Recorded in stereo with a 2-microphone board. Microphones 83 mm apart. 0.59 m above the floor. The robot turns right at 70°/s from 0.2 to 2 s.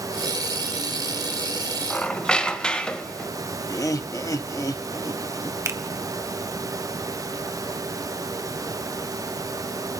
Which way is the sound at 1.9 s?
5° left (ahead or behind).